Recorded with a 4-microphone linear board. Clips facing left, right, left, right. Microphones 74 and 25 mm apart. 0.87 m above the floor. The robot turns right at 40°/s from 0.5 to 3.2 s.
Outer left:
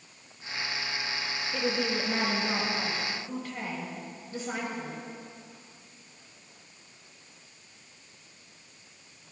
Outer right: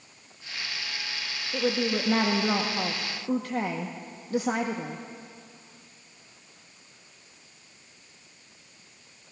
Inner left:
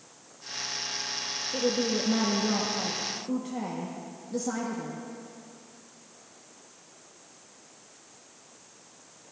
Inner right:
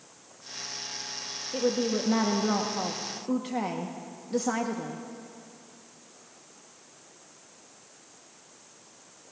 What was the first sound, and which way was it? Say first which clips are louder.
A woman speaking: outer right 4 dB, inner right 1 dB; 165° right.